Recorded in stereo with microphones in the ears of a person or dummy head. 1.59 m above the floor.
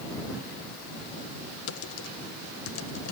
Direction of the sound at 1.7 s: 80° left.